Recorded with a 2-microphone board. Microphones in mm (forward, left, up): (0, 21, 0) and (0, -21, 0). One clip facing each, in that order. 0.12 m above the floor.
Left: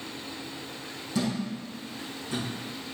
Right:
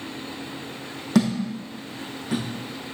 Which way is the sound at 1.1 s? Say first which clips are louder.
Right 8 dB; 70° right (ahead or behind).